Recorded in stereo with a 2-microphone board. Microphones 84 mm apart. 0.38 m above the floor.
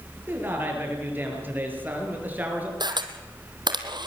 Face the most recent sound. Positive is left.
turn(degrees=-65)  # may be behind; listen again after turning